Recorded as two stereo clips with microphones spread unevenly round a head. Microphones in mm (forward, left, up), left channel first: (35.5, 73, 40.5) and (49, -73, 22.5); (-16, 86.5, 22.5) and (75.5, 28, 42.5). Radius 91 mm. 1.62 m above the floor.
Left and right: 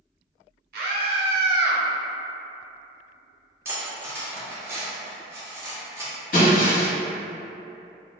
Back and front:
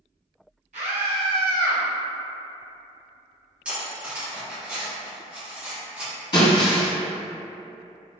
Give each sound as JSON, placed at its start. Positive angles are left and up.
{"t": 0.7, "sound": "a scream", "azimuth_deg": -75, "distance_m": 1.0}
{"t": 3.6, "sound": "cutlery clinking", "azimuth_deg": -20, "distance_m": 0.7}
{"t": 6.3, "sound": "breaking glass", "azimuth_deg": 105, "distance_m": 1.6}